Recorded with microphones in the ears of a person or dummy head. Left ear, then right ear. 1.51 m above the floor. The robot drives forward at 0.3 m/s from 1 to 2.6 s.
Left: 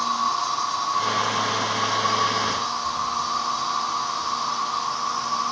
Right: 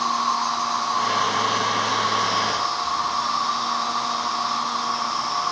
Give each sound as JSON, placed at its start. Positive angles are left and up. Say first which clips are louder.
{"t": 0.0, "sound": "an insect", "louder": "right 1 dB", "side_deg": -5, "distance_m": 1.6}